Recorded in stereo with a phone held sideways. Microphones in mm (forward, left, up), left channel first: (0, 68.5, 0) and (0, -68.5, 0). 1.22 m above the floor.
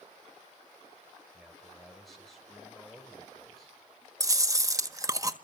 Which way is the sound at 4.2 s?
25° right (ahead or behind).